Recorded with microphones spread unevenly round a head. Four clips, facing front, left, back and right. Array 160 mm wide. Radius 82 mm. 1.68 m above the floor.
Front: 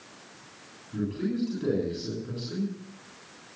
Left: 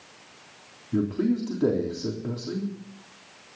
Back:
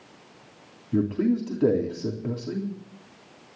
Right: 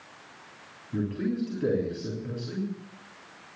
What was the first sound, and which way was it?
A man speaking, 150° left.